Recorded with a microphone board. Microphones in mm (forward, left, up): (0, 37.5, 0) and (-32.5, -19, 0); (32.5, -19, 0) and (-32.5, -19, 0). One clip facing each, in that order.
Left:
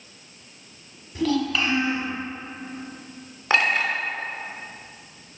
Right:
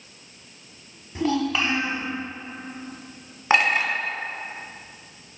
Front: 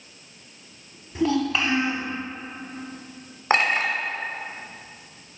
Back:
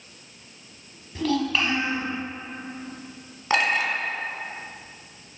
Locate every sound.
1.1 s a child speaking: 65° right, 1.0 m
3.5 s a clink: 50° right, 1.2 m